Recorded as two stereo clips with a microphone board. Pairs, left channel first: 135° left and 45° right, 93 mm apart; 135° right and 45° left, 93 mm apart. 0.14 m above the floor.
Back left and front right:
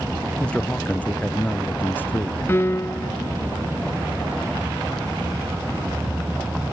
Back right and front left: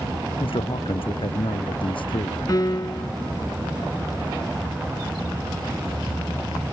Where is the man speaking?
150° right; by 2.4 s 160° right.